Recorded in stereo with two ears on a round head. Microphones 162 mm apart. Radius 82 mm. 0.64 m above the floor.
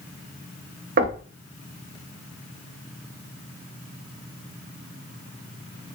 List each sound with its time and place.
1.0 s knocking: 50° right (ahead or behind), 0.5 m